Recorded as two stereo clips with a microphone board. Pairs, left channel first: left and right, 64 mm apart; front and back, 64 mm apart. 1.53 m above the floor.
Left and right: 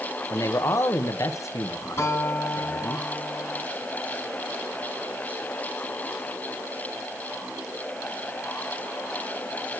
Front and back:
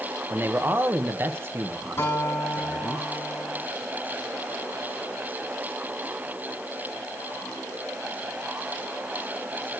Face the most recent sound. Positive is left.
turn(degrees=45)